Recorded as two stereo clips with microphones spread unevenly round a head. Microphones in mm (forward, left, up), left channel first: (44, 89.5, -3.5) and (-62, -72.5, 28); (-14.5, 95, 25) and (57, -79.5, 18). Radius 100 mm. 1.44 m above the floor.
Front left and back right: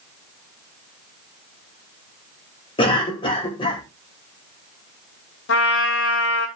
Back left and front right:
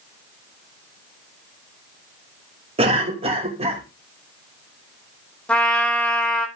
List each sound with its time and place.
2.8 s a cough: 10° right, 3 m
5.5 s a trumpet: 30° left, 2 m